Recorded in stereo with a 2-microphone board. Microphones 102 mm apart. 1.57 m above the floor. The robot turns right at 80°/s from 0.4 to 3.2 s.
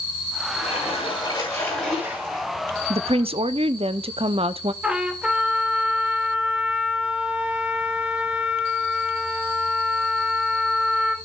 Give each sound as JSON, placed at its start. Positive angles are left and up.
{"t": 0.5, "sound": "a splash", "azimuth_deg": 65, "distance_m": 7.5}
{"t": 2.9, "sound": "a woman speaking", "side_deg": -75, "distance_m": 0.6}
{"t": 4.8, "sound": "a trumpet", "side_deg": -10, "distance_m": 1.6}